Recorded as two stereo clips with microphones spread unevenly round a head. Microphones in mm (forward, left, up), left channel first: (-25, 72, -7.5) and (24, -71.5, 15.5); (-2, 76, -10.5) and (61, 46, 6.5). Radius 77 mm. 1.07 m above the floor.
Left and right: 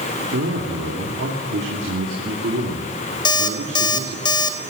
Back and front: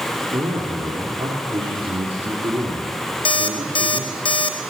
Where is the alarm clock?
175° left, 1.4 m.